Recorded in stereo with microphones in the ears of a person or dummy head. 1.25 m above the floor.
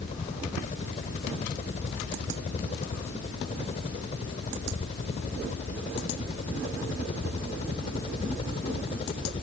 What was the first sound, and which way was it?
A helicopter, 35° left (ahead or behind).